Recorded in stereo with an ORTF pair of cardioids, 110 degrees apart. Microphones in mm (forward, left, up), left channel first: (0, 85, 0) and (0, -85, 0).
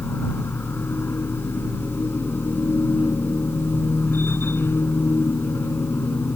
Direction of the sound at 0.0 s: 10° left.